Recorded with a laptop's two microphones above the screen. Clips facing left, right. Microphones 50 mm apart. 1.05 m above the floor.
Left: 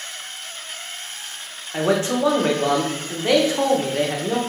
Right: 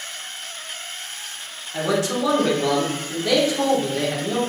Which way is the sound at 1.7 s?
35° left (ahead or behind).